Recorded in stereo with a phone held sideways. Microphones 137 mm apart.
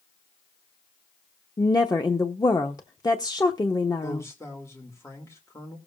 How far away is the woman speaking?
About 0.8 m.